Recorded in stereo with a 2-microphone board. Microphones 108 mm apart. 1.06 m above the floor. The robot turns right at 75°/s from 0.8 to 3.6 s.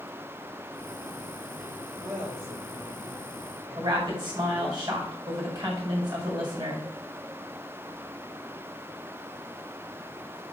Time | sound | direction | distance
2.0 | a woman speaking | 110° right | 3.5 m
3.8 | a woman speaking | 45° right (ahead or behind) | 5 m